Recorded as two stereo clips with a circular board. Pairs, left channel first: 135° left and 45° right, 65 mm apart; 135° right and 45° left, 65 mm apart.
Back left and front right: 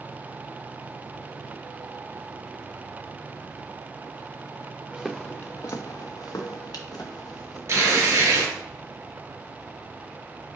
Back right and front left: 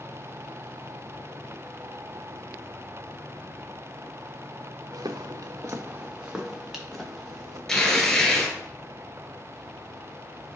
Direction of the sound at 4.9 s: 35° left.